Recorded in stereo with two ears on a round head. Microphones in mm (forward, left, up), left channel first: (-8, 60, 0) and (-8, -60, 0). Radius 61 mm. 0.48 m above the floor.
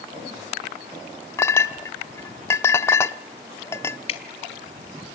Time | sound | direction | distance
1.4 | a clink | 20° left (ahead or behind) | 0.7 m
4.1 | dripping | 50° left (ahead or behind) | 2.5 m